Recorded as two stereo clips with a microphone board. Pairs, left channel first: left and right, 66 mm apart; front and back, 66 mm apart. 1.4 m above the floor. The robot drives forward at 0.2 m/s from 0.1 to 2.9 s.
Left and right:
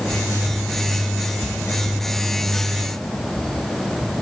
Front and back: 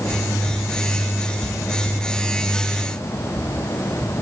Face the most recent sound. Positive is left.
No sound to turn to.